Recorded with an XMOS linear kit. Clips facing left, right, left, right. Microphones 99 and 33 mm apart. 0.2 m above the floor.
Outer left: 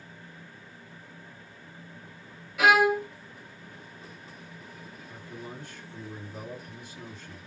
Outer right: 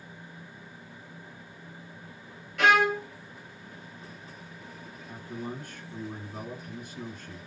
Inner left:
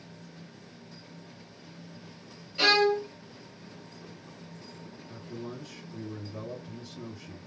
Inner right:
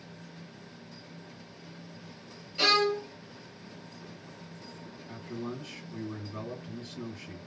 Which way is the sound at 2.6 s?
5° left (ahead or behind).